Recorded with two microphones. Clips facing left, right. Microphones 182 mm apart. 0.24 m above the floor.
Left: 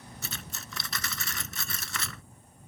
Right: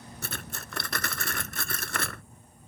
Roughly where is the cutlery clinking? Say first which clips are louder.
Right 5 dB; right.